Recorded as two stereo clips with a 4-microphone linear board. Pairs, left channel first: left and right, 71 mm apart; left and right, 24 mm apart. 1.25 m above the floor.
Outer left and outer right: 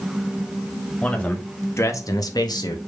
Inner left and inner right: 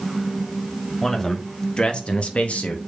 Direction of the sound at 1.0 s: 20° left (ahead or behind).